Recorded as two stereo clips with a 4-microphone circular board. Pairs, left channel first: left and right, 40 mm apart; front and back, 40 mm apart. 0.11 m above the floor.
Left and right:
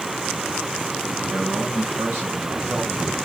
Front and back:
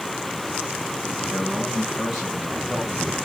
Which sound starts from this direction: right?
A man speaking, at 1.3 s.